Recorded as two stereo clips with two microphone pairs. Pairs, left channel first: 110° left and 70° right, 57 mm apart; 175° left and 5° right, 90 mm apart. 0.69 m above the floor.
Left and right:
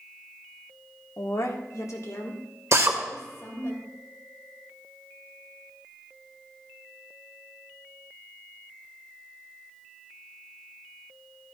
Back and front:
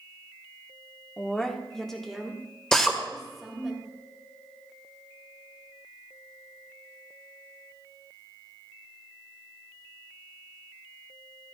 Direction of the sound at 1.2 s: 100° left.